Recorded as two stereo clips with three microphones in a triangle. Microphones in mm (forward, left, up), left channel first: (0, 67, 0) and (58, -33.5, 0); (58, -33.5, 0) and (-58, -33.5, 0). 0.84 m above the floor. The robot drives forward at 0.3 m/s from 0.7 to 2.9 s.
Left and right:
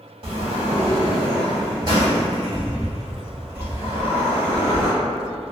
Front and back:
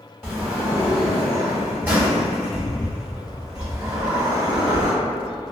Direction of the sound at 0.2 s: 85° right.